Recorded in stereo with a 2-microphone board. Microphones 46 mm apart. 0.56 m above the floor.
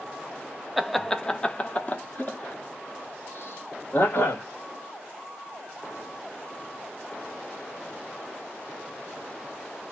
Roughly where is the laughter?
Centre.